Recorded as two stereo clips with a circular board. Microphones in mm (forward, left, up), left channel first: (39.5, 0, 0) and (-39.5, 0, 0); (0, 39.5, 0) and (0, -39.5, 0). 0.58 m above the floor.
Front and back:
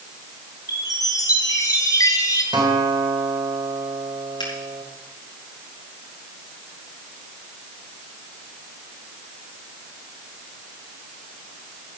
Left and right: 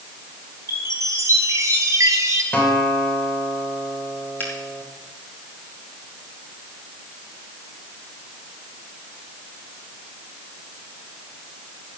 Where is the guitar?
165° left, 3 m.